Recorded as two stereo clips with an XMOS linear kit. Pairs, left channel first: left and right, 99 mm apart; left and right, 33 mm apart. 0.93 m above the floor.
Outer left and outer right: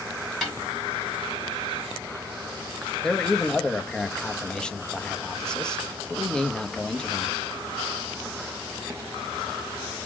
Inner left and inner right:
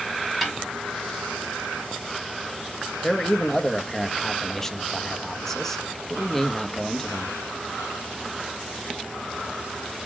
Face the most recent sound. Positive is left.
turn(degrees=10)  # may be behind; listen again after turning